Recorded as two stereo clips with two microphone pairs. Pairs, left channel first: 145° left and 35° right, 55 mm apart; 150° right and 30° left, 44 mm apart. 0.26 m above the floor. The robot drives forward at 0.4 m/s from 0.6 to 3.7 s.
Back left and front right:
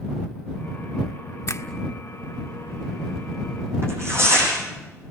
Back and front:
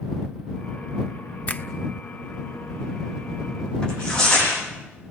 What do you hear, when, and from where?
1.5 s a finger snap: 165° left, 1.5 m
3.8 s tearing paper: 75° right, 9.5 m